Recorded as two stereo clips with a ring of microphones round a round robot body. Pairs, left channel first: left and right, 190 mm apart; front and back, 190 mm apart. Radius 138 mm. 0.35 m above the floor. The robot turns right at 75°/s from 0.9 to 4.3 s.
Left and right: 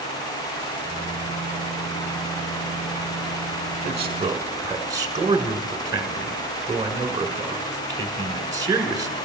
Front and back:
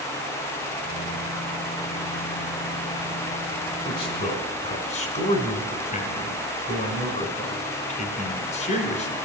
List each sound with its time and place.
3.9 s a man speaking: 60° right, 1.9 m; by 9.2 s 25° right, 1.9 m